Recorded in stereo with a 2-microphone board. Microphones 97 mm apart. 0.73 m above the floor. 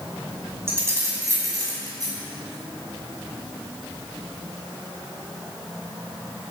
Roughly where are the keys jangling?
Right.